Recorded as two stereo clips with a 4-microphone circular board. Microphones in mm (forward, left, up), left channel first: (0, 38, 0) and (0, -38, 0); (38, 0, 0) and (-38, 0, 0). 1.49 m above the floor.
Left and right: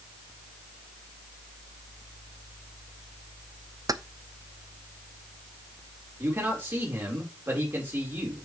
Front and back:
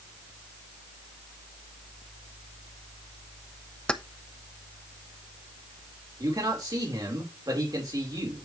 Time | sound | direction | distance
3.9 | keys jangling | 75° right | 0.7 m
6.2 | a man speaking | 150° right | 4 m